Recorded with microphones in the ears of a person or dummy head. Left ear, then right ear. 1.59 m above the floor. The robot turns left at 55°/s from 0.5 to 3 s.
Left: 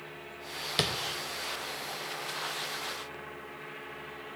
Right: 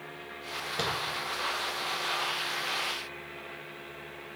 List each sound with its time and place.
0.8 s tapping: 50° left (ahead or behind), 0.6 m; by 0.9 s 55° left (ahead or behind), 0.6 m